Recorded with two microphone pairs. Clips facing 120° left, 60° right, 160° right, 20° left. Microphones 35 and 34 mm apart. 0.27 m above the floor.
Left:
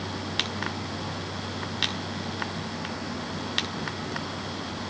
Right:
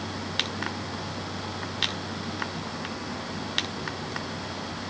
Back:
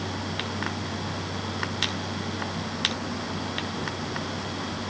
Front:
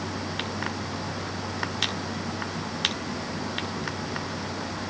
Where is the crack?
No crack in this recording.